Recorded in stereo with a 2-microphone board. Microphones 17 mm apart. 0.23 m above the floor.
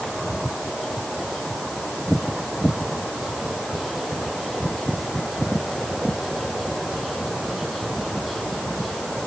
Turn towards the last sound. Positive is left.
No sound to turn to.